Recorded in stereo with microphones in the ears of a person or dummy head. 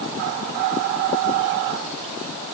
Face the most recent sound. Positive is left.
No sound to turn to.